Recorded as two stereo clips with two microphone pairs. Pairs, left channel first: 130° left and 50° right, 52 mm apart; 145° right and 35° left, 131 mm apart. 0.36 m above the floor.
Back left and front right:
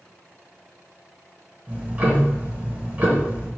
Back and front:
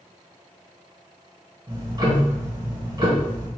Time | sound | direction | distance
1.7 | ticking | 5° right | 1.2 m